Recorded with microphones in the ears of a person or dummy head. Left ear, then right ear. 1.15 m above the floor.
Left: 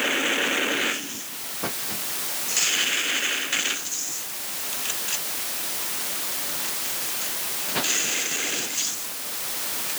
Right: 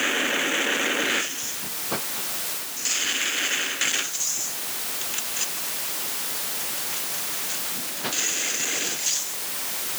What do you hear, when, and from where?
Only background noise.